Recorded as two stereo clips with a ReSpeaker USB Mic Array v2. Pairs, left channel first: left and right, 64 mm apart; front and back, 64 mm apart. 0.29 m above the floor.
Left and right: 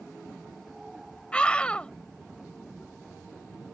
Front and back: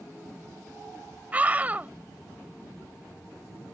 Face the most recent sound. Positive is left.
turn(degrees=145)